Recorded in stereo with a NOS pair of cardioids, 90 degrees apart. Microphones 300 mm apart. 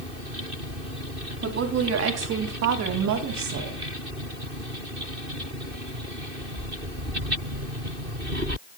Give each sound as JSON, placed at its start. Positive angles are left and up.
{"t": 1.4, "sound": "a woman speaking", "azimuth_deg": -50, "distance_m": 3.0}